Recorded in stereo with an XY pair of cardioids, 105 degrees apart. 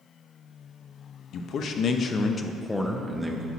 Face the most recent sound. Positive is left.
turn(degrees=-15)